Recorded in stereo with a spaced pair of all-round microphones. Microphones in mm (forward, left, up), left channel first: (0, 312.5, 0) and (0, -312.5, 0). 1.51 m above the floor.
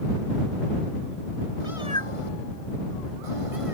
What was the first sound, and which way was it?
A cat meowing, 50° left (ahead or behind).